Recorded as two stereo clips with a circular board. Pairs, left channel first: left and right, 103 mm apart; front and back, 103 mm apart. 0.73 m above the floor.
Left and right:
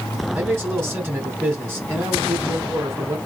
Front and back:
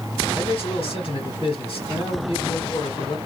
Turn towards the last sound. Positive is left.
turn(degrees=-25)